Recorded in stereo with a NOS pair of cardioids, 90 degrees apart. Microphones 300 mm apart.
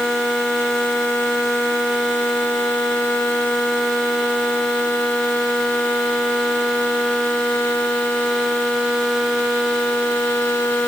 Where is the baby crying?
No baby crying in this recording.